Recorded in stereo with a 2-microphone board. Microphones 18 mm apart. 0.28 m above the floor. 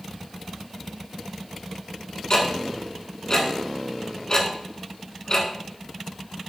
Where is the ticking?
45° left (ahead or behind), 1.0 m.